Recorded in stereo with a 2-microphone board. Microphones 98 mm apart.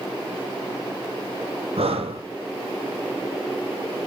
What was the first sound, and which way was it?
Breathing, 80° right.